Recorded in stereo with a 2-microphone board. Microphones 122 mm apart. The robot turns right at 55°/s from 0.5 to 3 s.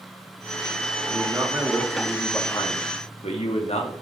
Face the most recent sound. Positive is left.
turn(degrees=60)